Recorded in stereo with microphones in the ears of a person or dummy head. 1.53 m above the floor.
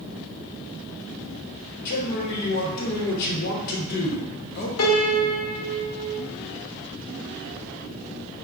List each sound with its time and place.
1.9 s a man speaking: 50° left (ahead or behind), 1.0 m
4.8 s a piano: 75° left (ahead or behind), 0.8 m